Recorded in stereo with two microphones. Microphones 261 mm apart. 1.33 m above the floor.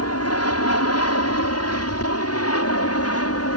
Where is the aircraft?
70° left (ahead or behind); by 3.6 s 65° left (ahead or behind).